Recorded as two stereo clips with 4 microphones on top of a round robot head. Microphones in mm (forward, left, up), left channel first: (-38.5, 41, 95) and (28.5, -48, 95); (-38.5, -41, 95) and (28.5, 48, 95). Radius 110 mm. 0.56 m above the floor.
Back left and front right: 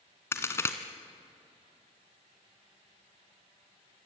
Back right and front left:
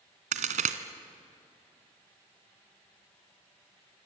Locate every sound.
0.3 s a crack: 60° left, 1.2 m